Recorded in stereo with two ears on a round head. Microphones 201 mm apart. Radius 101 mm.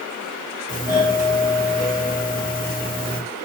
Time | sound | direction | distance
0.7 | a doorbell | 20° left (ahead or behind) | 1.8 m